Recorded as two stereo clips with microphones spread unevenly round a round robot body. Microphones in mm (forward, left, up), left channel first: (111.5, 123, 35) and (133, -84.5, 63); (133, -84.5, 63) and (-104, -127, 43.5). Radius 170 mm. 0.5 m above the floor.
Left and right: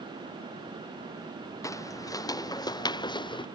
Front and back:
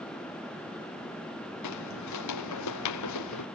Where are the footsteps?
20° left; by 3.5 s 30° left.